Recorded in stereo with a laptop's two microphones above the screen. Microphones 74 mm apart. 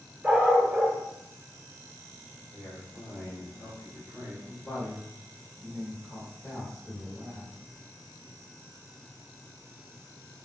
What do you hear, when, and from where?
0.2 s a dog barking: 20° right (ahead or behind), 0.6 m
2.5 s a man speaking: 60° right (ahead or behind), 1.6 m
4.5 s a woman speaking: 10° left (ahead or behind), 1.0 m